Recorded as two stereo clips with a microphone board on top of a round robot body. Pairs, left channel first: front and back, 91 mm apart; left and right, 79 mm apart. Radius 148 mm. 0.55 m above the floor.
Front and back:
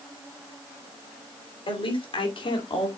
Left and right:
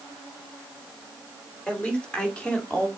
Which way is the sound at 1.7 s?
15° left.